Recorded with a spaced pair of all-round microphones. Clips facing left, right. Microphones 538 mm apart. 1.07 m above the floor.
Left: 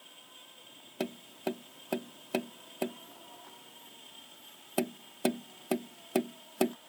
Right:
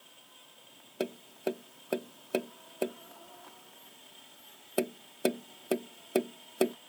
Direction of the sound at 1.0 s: 20° left (ahead or behind).